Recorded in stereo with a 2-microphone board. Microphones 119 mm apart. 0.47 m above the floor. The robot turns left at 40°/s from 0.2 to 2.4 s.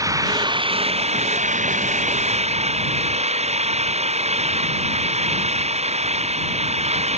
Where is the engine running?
30° right; by 7.2 s 115° right.